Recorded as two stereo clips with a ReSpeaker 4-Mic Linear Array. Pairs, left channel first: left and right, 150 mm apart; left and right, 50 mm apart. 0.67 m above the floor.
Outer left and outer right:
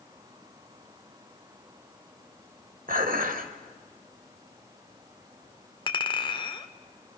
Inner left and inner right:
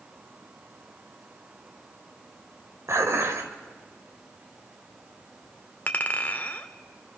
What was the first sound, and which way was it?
Dishes clattering, 65° right (ahead or behind).